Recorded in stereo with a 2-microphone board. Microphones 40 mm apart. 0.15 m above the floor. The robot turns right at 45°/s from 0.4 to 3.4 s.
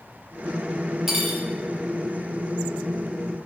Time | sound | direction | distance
1.1 | cutlery clinking | 10° right (ahead or behind) | 0.7 m